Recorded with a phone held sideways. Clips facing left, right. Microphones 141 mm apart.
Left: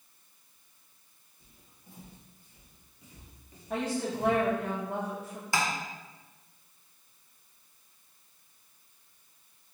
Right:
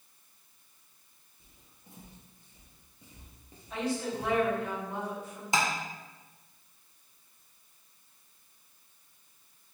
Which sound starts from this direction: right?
Tapping, at 5.5 s.